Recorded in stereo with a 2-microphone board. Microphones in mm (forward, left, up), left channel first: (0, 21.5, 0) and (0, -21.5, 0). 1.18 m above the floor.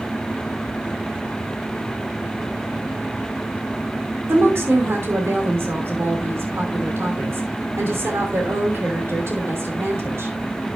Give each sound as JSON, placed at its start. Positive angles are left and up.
{"t": 4.3, "sound": "a woman speaking", "side_deg": -75, "distance_m": 3.0}